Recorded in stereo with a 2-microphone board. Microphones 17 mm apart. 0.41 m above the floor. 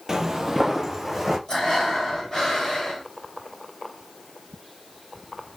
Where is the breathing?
50° left (ahead or behind), 1.9 m.